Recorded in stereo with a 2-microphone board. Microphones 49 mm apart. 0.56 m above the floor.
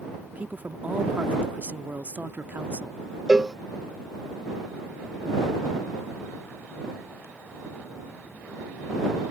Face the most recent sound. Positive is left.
turn(degrees=-15)  # may be behind; listen again after turning